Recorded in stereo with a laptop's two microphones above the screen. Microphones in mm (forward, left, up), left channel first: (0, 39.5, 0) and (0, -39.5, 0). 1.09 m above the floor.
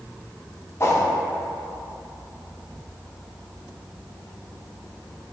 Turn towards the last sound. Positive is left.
turn(degrees=35)  # may be behind; listen again after turning